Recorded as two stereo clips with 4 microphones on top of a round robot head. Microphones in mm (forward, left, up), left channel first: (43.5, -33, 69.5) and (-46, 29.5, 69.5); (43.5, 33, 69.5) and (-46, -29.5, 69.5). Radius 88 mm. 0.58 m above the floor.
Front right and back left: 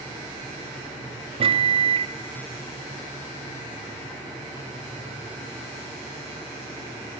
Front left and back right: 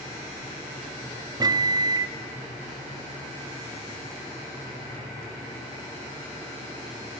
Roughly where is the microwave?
Behind.